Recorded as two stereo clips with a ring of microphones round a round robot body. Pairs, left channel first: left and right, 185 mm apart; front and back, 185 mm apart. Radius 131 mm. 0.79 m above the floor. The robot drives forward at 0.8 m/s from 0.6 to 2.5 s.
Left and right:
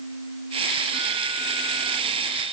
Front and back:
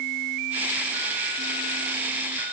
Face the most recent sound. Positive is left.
No sound to turn to.